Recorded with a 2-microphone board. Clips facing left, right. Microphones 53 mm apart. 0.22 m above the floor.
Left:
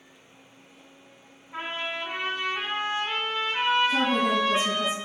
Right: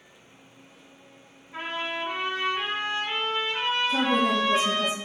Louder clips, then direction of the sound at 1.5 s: Right 1 dB; 20° left (ahead or behind).